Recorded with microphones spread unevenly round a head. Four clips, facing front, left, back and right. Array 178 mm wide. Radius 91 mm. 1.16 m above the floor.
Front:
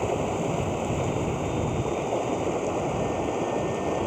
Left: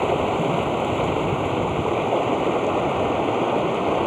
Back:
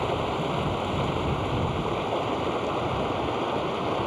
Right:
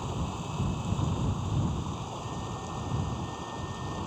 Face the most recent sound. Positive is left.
turn(degrees=85)